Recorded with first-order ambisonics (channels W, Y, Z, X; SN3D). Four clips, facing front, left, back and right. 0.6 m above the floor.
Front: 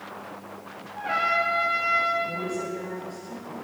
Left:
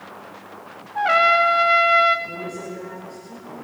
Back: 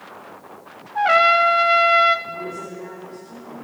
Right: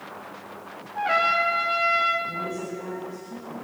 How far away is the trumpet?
About 1.5 m.